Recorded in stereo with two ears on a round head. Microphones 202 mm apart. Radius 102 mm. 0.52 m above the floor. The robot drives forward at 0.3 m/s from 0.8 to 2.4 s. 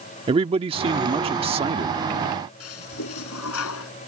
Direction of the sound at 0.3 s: 25° right (ahead or behind).